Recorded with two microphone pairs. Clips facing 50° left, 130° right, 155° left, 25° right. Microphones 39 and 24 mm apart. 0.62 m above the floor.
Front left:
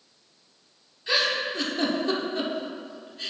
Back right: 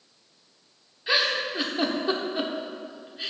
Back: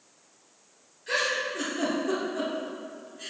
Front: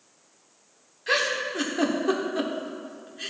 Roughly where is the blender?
No blender in this recording.